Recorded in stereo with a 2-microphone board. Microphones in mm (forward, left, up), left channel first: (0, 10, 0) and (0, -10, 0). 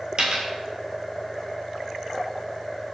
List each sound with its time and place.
0.2 s a dropped coin: 55° right (ahead or behind), 0.9 m